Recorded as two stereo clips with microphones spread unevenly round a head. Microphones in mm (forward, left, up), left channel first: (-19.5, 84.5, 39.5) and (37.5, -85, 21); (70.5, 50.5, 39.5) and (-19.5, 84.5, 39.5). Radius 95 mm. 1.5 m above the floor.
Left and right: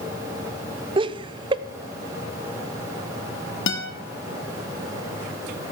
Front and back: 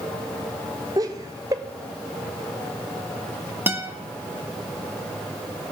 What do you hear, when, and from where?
1.0 s laughter: 135° right, 0.8 m
3.7 s a guitar: 90° left, 1.8 m